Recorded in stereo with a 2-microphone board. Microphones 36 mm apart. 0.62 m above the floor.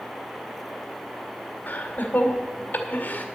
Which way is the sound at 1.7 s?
65° left (ahead or behind).